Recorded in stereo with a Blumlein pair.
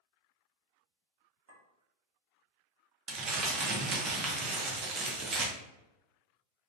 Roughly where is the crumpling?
Ahead right.